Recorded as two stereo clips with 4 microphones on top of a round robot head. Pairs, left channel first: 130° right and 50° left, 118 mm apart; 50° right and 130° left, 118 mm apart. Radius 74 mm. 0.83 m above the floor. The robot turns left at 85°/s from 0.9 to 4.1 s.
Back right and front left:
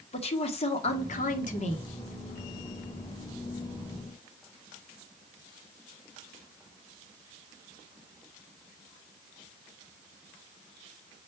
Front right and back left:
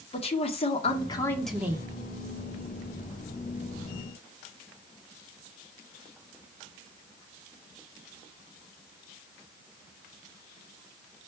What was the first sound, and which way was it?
A woman speaking, 90° right.